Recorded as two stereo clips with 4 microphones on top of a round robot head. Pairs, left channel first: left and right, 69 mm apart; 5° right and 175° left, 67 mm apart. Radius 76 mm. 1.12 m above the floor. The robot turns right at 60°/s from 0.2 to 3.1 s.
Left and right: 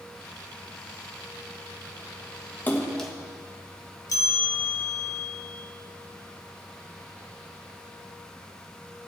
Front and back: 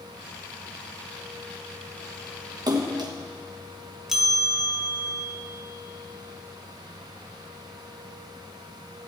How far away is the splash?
About 1.3 m.